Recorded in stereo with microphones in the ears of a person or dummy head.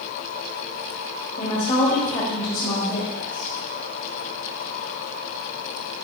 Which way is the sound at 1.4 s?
30° left (ahead or behind).